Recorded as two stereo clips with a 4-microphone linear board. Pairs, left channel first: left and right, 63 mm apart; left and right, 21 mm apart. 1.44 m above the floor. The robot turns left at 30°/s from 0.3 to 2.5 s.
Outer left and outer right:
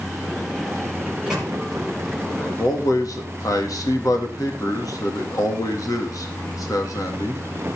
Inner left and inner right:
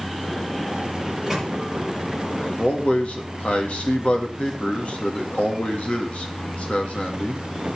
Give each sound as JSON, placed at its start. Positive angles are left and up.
{"t": 1.1, "sound": "a microwave", "side_deg": -20, "distance_m": 6.0}
{"t": 2.4, "sound": "a man speaking", "side_deg": 60, "distance_m": 3.0}